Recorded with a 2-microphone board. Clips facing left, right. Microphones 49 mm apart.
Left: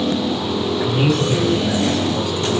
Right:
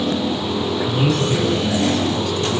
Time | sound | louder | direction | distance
0.8 | a man speaking | left 2 dB | 50° left (ahead or behind) | 2.5 m